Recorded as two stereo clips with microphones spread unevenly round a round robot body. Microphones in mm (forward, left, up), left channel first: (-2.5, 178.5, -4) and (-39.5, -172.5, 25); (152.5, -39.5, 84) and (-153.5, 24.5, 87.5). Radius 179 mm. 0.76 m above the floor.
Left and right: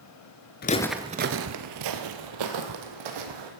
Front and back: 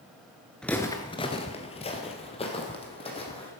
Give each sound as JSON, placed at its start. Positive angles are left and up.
{"t": 0.6, "sound": "footsteps", "azimuth_deg": 75, "distance_m": 0.7}